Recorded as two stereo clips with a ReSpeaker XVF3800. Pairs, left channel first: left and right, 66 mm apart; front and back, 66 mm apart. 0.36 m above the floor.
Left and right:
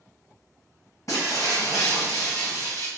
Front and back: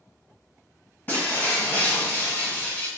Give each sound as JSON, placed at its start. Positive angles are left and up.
{"t": 1.1, "sound": "breaking glass", "azimuth_deg": 55, "distance_m": 1.5}